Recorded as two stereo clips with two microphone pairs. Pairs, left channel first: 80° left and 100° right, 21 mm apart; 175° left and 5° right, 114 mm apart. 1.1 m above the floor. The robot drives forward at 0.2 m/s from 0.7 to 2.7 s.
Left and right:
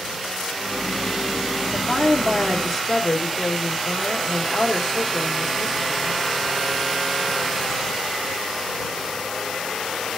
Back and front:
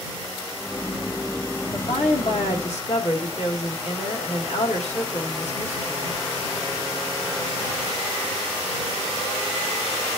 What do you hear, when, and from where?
1.7 s a woman speaking: 165° left, 1.4 m